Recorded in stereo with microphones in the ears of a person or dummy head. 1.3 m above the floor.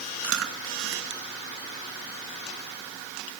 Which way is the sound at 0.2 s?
75° right (ahead or behind).